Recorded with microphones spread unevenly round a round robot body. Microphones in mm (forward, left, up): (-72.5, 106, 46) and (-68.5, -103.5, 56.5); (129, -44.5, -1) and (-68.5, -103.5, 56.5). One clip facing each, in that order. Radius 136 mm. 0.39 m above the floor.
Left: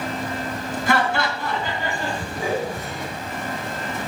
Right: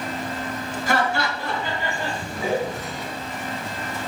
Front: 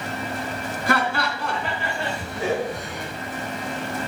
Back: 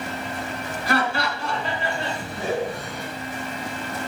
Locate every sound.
0.9 s laughter: 55° left, 3.5 m; by 3.0 s 20° left, 4.5 m